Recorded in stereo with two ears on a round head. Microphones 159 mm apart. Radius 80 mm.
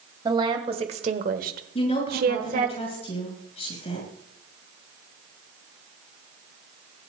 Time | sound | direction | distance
0.2 | a woman speaking | 25° right (ahead or behind) | 2 m
1.8 | a woman speaking | 35° left (ahead or behind) | 6 m